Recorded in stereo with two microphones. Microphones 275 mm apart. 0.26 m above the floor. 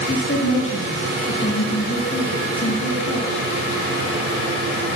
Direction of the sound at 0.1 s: 50° left (ahead or behind).